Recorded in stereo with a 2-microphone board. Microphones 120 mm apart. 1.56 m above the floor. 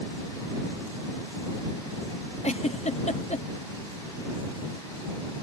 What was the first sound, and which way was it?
A giggle, 65° left (ahead or behind).